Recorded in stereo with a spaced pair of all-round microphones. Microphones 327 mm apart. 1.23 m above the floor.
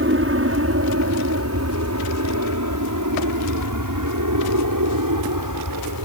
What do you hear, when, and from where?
0.0 s an aircraft: 40° right (ahead or behind); by 6.1 s 70° right (ahead or behind)